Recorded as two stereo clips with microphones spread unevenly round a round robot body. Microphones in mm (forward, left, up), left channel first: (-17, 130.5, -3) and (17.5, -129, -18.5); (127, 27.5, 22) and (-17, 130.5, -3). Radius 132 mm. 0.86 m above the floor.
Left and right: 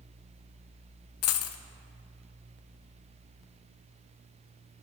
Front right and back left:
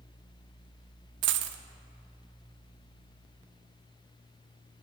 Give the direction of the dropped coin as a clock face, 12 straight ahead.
8 o'clock.